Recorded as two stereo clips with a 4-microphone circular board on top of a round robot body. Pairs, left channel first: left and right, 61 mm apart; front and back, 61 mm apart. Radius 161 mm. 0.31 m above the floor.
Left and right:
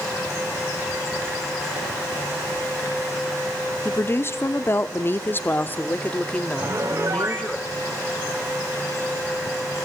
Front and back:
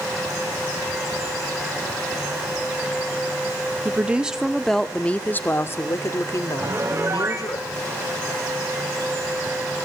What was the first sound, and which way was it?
A woman speaking, 125° left.